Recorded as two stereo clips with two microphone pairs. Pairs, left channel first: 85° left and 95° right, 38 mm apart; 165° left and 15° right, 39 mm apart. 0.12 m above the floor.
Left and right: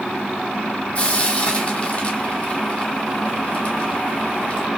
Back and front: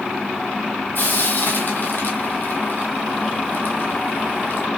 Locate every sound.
0.9 s frying: 140° left, 1.0 m